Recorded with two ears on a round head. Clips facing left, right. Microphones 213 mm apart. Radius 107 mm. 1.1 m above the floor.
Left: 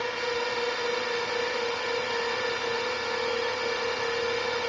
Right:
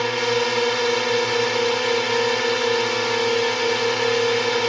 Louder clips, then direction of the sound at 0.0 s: Right 9 dB; 65° right (ahead or behind).